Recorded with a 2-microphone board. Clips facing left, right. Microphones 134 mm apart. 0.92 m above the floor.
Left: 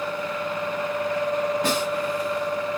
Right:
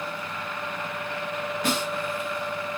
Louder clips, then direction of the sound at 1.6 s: Left 3 dB; 30° left (ahead or behind).